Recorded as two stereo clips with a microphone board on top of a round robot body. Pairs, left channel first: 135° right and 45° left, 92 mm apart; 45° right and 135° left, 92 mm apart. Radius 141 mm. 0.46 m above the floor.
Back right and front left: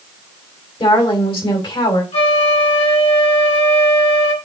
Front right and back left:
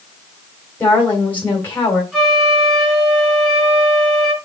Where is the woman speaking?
115° right, 3 m.